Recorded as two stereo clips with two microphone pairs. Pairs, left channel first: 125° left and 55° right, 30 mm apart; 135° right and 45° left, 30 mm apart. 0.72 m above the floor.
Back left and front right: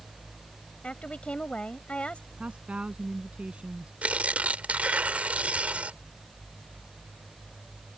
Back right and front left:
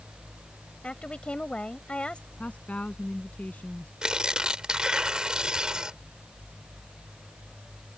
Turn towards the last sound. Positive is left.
turn(degrees=-20)